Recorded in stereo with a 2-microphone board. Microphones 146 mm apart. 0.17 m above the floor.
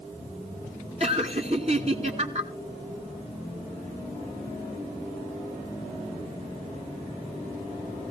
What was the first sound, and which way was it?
Laughter, 45° right (ahead or behind).